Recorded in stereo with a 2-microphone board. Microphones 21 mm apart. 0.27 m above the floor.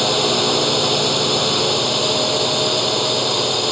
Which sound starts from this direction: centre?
A drone, at 0.0 s.